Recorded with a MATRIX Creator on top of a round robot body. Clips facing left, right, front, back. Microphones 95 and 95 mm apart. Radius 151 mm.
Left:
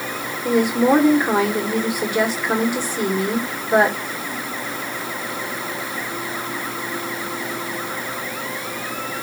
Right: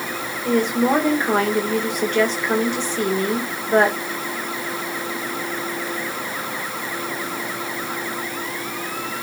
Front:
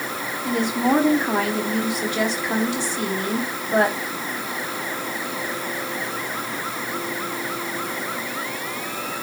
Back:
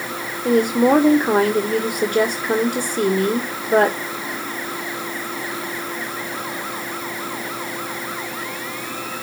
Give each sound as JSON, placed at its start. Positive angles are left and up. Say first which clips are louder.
{"t": 0.5, "sound": "a woman speaking", "louder": "left 2 dB, back 6 dB", "azimuth_deg": 165, "distance_m": 1.9}